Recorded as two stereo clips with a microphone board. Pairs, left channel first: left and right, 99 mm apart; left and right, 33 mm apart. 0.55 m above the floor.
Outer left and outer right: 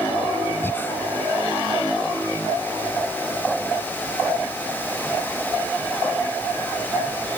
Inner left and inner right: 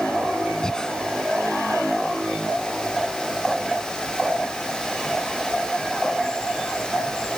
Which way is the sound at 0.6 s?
20° left (ahead or behind).